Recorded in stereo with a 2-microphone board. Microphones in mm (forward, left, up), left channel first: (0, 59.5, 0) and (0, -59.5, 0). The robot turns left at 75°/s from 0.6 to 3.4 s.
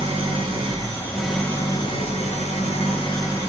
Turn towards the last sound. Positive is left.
turn(degrees=25)